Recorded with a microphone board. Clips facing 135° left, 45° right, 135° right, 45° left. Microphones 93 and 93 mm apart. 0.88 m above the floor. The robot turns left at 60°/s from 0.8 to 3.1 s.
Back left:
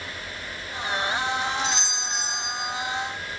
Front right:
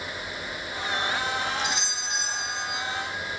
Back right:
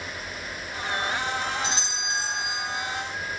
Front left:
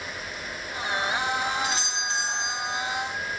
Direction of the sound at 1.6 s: 110° right.